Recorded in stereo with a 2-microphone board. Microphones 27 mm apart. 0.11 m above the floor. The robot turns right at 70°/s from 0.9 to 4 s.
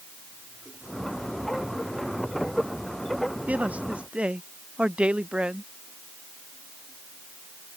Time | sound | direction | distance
3.5 | a man speaking | 90° right | ?